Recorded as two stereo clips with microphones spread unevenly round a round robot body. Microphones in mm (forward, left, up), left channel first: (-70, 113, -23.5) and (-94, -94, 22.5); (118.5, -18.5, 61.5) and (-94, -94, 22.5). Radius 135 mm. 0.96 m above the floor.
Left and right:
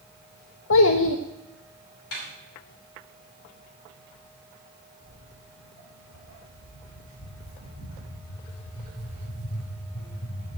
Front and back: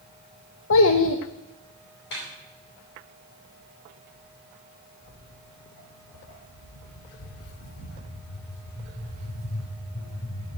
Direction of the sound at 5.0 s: 20° left.